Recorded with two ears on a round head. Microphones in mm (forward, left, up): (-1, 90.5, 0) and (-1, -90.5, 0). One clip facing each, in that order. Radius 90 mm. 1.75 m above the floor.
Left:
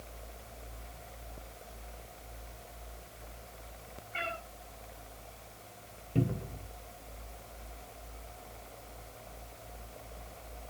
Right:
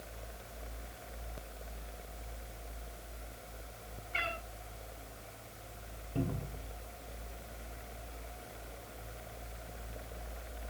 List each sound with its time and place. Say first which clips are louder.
4.1 s a cat meowing: left 2 dB; 50° right (ahead or behind), 8.5 m
6.2 s a cupboard door: left 4 dB; 30° left (ahead or behind), 1.8 m